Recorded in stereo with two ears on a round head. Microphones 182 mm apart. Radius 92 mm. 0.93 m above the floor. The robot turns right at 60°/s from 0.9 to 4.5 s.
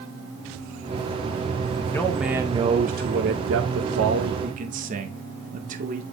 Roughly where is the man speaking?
Behind.